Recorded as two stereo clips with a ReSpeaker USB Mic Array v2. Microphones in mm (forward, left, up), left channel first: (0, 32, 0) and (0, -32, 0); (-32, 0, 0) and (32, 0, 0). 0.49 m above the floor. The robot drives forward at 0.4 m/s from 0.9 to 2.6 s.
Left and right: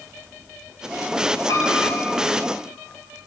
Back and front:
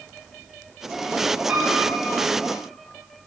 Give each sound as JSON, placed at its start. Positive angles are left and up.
{"t": 1.5, "sound": "a piano", "azimuth_deg": 60, "distance_m": 3.0}